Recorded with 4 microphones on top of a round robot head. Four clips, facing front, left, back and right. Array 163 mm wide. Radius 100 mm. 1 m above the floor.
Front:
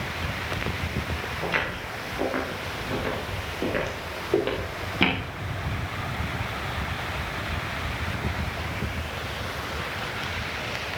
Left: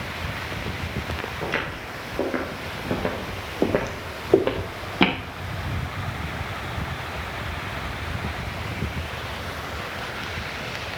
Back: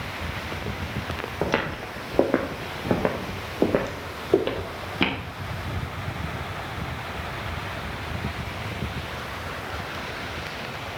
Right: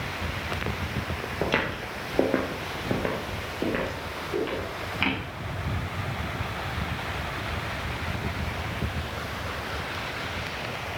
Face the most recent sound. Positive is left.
turn(degrees=95)